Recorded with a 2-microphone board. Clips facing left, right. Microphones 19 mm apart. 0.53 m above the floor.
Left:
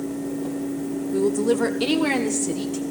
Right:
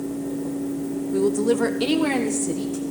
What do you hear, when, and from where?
1.1 s a woman speaking: 25° right (ahead or behind), 0.8 m; by 2.8 s 40° left (ahead or behind), 1.4 m